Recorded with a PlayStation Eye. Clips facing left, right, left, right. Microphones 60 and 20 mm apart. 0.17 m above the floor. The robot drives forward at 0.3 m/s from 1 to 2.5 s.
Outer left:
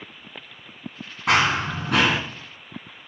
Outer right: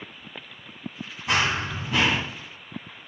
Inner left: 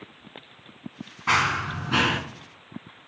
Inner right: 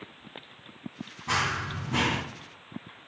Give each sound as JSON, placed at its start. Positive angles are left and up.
{"t": 1.3, "sound": "running footsteps", "side_deg": 80, "distance_m": 1.1}